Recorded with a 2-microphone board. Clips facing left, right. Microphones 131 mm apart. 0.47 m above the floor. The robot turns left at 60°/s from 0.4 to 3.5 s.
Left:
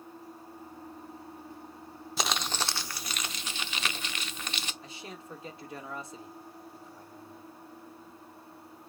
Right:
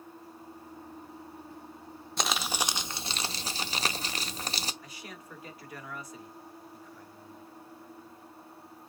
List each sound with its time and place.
2.2 s crumpling: 5° left, 0.5 m; by 4.7 s 75° right, 0.5 m
4.8 s a man speaking: 25° left (ahead or behind), 1.0 m